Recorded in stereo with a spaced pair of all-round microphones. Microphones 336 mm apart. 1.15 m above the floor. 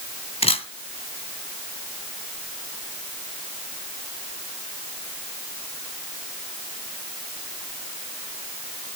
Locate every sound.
0.4 s a camera shutter: 15° left (ahead or behind), 2 m